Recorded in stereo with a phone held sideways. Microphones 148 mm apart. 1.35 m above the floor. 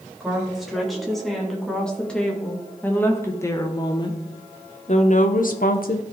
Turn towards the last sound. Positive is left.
turn(degrees=75)  # may be behind; listen again after turning